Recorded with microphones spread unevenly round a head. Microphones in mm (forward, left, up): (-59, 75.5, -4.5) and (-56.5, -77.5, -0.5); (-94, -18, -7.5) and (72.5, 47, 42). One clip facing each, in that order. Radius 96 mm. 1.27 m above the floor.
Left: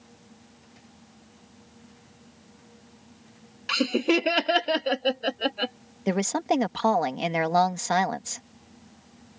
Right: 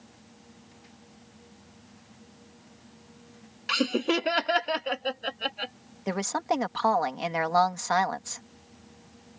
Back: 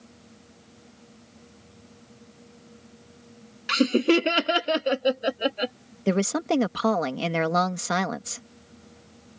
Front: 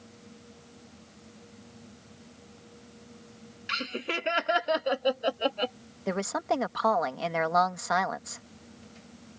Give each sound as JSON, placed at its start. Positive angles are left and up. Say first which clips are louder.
{"t": 3.7, "sound": "laughter", "louder": "left 3 dB, back 16 dB", "azimuth_deg": 180}
{"t": 6.1, "sound": "a woman speaking", "louder": "left 4 dB, back 6 dB", "azimuth_deg": 155}